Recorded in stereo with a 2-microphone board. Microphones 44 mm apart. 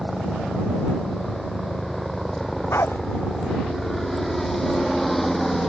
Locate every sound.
0.0 s a helicopter: 5° left (ahead or behind)
2.7 s a dog barking: 75° left (ahead or behind)